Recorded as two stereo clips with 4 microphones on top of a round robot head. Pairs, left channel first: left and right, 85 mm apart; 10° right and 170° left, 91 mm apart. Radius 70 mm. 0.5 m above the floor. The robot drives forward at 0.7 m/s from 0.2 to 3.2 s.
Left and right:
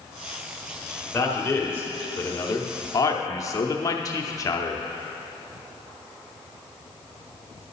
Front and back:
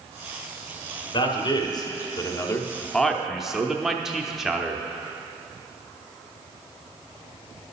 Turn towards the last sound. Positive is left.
turn(degrees=90)